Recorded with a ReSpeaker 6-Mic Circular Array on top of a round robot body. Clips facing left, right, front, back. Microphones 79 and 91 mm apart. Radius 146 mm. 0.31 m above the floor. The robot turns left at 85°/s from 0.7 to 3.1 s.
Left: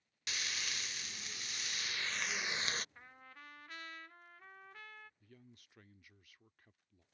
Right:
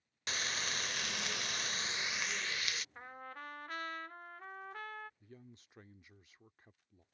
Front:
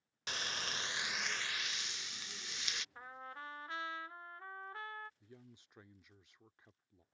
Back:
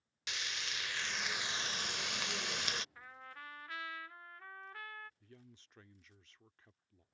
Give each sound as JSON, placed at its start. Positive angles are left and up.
{"t": 0.3, "sound": "frying", "azimuth_deg": -45}
{"t": 3.0, "sound": "a trumpet", "azimuth_deg": -45}
{"t": 5.2, "sound": "a man speaking", "azimuth_deg": -60}